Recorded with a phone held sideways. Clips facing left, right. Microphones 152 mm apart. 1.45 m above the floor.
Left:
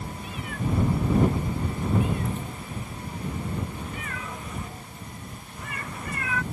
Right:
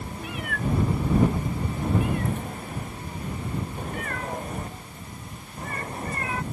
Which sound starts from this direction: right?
A cat meowing, at 0.2 s.